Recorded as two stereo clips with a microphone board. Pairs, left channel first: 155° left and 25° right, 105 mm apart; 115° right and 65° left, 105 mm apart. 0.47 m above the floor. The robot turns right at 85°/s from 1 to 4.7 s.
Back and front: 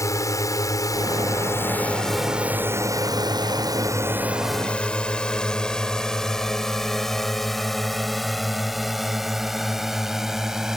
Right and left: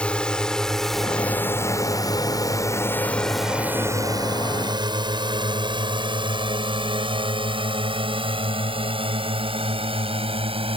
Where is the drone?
175° left; by 10.8 s 65° left.